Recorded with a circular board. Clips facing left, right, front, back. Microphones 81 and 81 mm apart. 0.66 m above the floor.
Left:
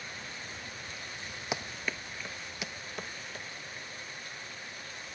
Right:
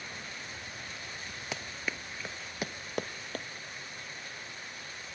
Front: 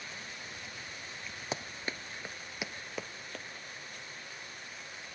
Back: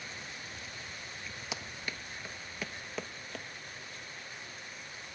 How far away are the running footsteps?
About 0.8 m.